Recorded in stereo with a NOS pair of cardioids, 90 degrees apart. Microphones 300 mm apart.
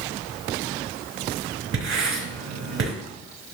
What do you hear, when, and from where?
1.7 s writing: 45° right, 4 m